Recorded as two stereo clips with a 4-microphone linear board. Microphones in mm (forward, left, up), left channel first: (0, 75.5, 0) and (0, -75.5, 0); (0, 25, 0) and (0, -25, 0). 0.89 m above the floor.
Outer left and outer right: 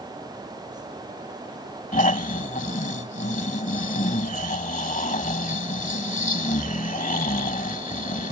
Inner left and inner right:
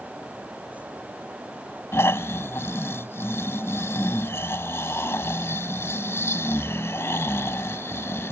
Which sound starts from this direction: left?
Snoring, at 1.9 s.